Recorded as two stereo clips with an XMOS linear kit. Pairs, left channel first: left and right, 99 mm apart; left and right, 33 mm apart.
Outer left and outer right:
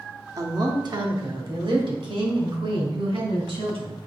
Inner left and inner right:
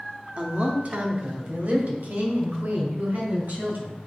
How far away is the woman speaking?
About 0.9 m.